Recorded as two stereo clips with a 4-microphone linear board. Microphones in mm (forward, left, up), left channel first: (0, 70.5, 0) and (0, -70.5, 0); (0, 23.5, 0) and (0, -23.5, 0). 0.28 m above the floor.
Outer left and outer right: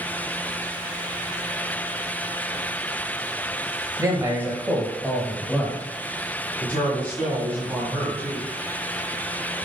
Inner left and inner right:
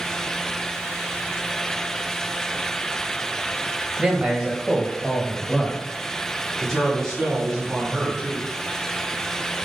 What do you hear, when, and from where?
4.0 s a man speaking: 25° right (ahead or behind), 1.3 m; by 5.8 s 15° left (ahead or behind), 1.4 m
6.6 s a man speaking: 10° left (ahead or behind), 2.5 m